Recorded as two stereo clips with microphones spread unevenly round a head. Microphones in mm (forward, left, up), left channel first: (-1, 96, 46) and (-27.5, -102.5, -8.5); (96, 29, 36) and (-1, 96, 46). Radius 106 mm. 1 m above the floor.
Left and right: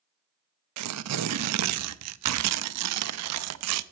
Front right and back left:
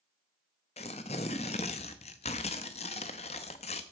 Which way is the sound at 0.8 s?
90° right.